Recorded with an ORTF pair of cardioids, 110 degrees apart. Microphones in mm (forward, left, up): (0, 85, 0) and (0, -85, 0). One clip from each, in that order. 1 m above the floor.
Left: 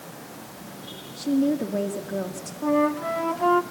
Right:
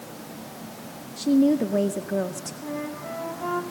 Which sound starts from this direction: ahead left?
A flute, at 2.6 s.